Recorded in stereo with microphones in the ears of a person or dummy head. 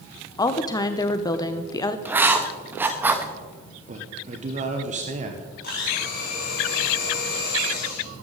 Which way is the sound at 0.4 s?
20° left (ahead or behind).